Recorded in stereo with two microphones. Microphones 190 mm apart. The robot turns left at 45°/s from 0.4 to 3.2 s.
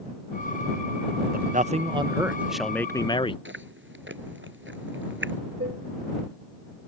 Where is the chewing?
85° right.